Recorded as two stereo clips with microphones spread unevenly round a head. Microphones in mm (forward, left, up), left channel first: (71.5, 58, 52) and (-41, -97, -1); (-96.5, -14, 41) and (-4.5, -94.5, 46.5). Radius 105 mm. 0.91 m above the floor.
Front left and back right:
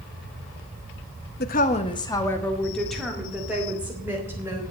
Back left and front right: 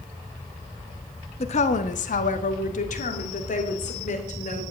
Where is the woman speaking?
100° left, 1.0 m; by 4.6 s 155° left, 3.5 m.